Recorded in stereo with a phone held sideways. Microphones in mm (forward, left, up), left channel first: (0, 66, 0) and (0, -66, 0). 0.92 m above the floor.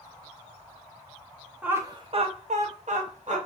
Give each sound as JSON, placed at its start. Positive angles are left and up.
{"t": 1.6, "sound": "laughter", "side_deg": -10, "distance_m": 0.6}